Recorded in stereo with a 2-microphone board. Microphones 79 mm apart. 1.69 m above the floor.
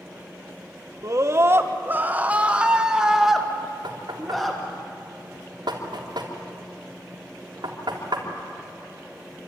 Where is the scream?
40° right (ahead or behind), 1.3 m; by 4.6 s 5° left (ahead or behind), 2.5 m.